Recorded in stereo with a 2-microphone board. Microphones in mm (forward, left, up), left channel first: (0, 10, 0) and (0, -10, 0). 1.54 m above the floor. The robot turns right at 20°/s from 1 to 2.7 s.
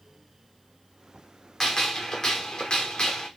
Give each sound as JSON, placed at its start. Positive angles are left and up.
{"t": 1.6, "sound": "a gunshot", "side_deg": 20, "distance_m": 0.7}